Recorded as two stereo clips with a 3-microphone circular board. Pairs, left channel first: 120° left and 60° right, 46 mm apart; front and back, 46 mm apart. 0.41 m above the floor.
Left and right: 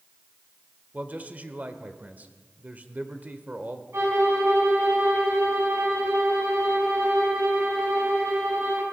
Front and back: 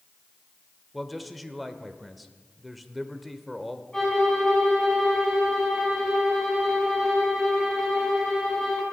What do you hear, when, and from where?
0.9 s a man speaking: 90° right, 1.3 m
3.9 s a violin: 75° right, 4.5 m